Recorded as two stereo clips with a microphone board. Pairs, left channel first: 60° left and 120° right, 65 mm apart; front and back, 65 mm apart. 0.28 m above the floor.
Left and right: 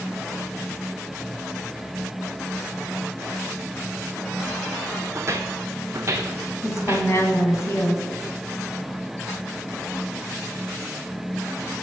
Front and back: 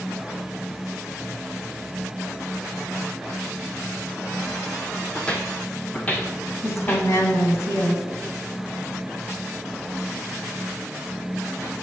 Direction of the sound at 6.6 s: 25° left.